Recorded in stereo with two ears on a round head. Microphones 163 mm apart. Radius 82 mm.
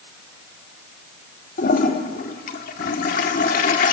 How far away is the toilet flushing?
About 1.5 m.